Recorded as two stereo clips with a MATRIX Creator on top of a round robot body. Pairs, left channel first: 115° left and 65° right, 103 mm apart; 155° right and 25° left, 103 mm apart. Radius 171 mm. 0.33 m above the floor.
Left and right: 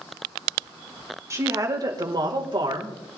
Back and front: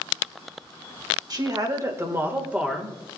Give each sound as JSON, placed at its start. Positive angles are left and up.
{"t": 1.3, "sound": "a woman speaking", "azimuth_deg": -15, "distance_m": 2.0}